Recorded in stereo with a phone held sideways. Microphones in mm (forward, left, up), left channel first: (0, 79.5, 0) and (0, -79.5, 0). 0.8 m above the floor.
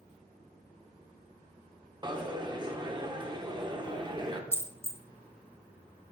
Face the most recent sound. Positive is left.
turn(degrees=15)  # may be behind; listen again after turning